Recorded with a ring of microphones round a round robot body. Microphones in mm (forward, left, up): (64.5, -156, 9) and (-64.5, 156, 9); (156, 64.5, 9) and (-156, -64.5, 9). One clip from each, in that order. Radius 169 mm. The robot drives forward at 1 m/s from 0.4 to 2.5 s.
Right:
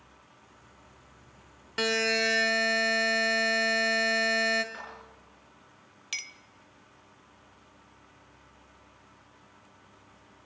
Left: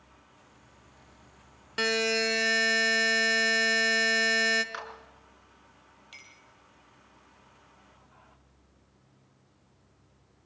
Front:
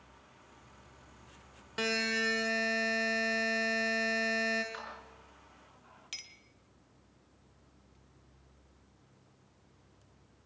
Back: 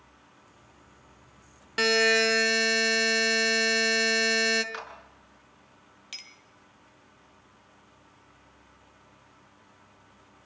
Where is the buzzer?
165° right, 1.1 m; by 4.6 s 175° right, 1.5 m.